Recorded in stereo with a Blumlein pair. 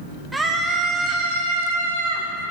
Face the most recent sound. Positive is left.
turn(degrees=-50)